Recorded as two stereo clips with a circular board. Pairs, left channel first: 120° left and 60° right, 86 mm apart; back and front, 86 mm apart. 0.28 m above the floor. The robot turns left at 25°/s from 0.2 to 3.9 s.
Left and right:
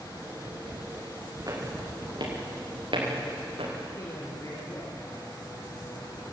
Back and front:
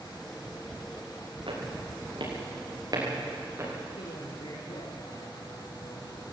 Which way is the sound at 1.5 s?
15° right.